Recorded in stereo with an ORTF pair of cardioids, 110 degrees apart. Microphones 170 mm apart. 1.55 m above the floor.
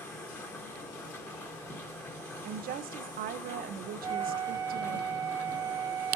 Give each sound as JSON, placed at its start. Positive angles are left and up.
{"t": 0.0, "sound": "a machine running", "azimuth_deg": 15, "distance_m": 1.7}
{"t": 2.5, "sound": "a woman speaking", "azimuth_deg": -65, "distance_m": 0.9}
{"t": 4.0, "sound": "a flute", "azimuth_deg": -20, "distance_m": 1.0}